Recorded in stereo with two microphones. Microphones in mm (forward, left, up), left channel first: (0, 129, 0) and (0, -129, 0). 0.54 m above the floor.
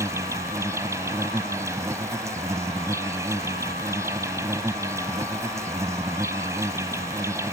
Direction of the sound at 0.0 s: 10° right (ahead or behind).